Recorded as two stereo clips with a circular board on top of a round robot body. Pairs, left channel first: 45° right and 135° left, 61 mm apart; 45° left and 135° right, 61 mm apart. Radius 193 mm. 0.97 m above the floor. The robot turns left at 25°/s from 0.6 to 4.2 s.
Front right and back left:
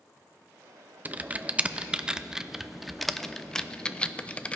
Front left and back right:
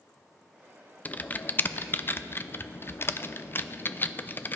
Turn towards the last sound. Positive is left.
turn(degrees=15)